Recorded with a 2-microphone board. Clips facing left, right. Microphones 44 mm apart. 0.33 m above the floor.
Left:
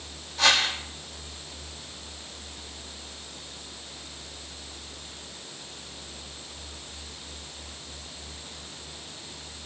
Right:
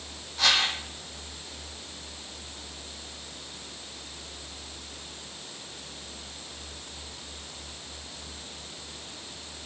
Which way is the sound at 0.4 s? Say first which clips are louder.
Left 2 dB; centre (ahead or behind).